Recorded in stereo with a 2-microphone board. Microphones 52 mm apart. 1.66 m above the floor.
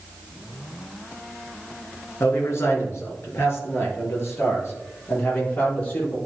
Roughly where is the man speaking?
Left.